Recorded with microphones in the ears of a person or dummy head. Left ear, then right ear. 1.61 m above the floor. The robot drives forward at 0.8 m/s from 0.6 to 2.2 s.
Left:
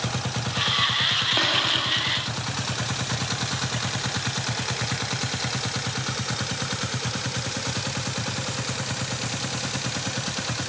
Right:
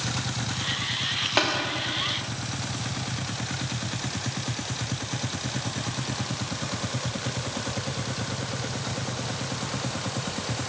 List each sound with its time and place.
1.4 s tapping: 20° right (ahead or behind), 1.8 m; by 1.5 s 25° right (ahead or behind), 1.7 m